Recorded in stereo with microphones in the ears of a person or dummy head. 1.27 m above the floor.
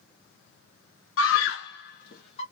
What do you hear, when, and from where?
1.2 s a scream: 65° left (ahead or behind), 0.6 m; by 2.4 s 35° left (ahead or behind), 0.8 m